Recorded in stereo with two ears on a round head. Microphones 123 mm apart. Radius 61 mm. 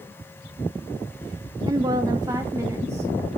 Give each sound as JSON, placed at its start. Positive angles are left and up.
{"t": 1.6, "sound": "a woman speaking", "side_deg": -25, "distance_m": 0.5}